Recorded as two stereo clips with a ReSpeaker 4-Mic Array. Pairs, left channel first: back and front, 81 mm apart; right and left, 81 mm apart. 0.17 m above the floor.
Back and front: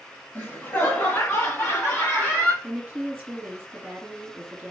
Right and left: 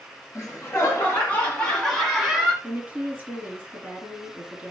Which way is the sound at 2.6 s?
50° left.